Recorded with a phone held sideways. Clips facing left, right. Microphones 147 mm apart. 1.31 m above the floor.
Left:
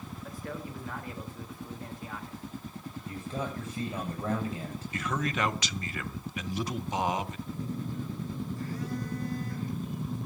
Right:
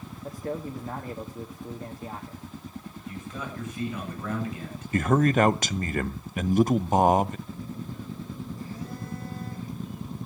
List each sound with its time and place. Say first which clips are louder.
0.2 s a man speaking: right 8 dB; 30° right (ahead or behind), 2.0 m
3.0 s a man speaking: left 2 dB; 30° left (ahead or behind), 8 m
4.9 s a man speaking: right 11 dB; 50° right (ahead or behind), 0.6 m
7.5 s a phone buzzing: left 1 dB; 80° left, 9 m